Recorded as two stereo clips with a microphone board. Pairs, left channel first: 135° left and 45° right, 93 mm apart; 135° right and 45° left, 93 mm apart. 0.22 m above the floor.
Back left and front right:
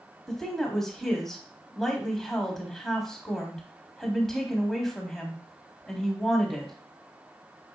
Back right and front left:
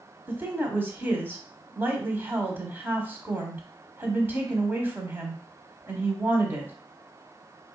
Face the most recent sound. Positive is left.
turn(degrees=55)